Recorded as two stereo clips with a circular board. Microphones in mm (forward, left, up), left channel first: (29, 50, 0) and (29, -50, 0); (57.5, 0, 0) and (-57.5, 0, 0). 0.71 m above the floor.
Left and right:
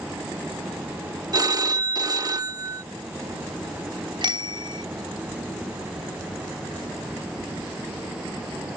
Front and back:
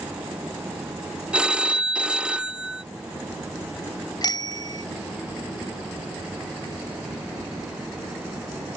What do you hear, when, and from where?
1.3 s a phone ringing: 105° right
4.2 s a bicycle bell: 50° right